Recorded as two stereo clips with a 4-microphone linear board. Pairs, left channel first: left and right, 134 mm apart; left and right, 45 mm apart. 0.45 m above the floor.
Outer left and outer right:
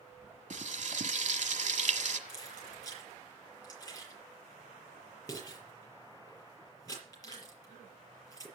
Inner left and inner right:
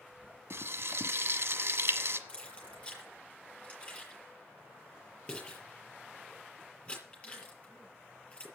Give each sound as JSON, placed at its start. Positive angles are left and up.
{"t": 0.5, "sound": "frying", "side_deg": -65, "distance_m": 1.2}
{"t": 2.3, "sound": "keys jangling", "side_deg": 25, "distance_m": 6.0}